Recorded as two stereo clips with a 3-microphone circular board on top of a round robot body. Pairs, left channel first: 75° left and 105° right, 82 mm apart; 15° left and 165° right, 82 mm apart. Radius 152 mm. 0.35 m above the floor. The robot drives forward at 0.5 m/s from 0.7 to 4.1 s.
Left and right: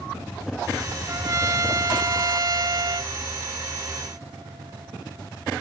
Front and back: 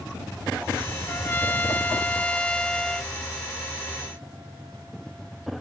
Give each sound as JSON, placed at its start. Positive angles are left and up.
{"t": 1.1, "sound": "a trumpet", "azimuth_deg": -50}